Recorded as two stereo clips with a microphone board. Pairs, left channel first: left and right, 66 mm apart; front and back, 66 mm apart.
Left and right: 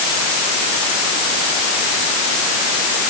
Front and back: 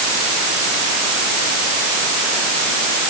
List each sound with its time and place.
Only background noise.